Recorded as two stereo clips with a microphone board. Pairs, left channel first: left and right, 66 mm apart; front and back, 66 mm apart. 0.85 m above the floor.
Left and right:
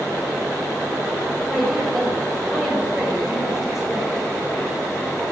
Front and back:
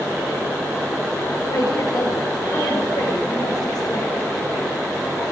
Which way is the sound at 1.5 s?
5° right.